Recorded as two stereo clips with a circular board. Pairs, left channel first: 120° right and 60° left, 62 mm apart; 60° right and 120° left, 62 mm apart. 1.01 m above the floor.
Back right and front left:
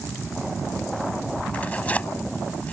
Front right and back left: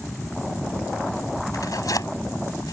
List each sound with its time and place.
1.5 s tearing paper: 60° right